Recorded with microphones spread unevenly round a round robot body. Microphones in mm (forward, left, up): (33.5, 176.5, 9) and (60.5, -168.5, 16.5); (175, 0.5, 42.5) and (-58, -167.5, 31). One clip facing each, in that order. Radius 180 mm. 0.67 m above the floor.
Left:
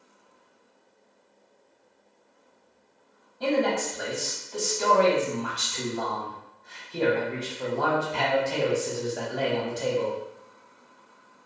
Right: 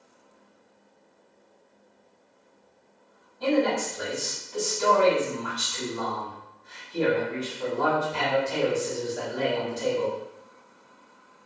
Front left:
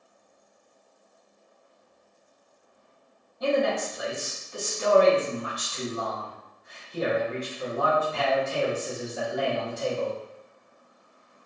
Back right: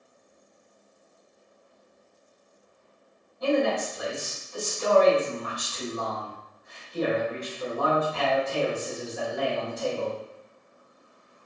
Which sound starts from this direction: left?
A man speaking, at 3.4 s.